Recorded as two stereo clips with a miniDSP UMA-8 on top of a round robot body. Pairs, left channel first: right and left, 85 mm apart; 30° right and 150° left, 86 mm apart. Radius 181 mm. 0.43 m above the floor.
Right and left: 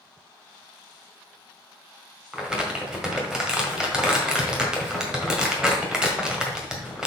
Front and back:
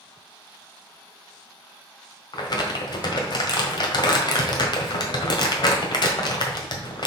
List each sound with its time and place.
2.3 s crumpling: 10° left, 1.6 m